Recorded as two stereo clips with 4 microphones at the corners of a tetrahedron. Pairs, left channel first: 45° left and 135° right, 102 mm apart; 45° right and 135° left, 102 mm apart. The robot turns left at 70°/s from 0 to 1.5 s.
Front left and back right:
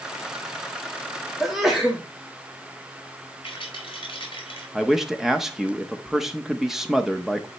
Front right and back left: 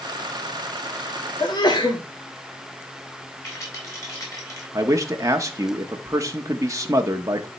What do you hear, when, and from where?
1.4 s a sneeze: 40° right, 1.5 m; by 2.0 s 50° right, 1.5 m
3.4 s a rattle: 10° left, 4 m
4.7 s a man speaking: 145° left, 0.8 m